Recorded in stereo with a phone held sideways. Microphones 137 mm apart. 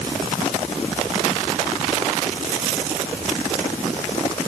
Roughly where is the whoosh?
No whoosh in this recording.